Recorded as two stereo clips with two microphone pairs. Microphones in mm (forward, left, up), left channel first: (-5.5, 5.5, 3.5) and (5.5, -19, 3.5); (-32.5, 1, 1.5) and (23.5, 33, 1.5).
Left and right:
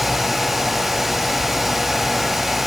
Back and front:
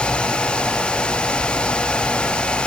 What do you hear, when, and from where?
Only background noise.